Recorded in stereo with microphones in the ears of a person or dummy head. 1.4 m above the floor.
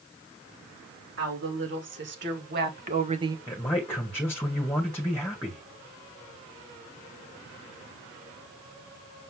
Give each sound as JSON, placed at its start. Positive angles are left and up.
{"t": 1.2, "sound": "a woman speaking", "side_deg": -70, "distance_m": 4.0}
{"t": 3.5, "sound": "a man speaking", "side_deg": 10, "distance_m": 2.0}